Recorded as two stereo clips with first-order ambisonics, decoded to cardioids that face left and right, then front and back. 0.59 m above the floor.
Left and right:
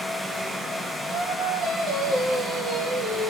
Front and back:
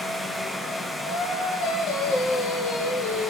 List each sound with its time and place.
1.1 s singing: 15° right, 2.5 m